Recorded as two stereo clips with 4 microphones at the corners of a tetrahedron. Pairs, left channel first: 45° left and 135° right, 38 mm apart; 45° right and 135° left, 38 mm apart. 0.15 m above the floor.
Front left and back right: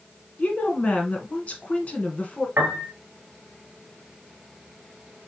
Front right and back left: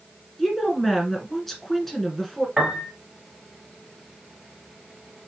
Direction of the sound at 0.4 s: 35° left.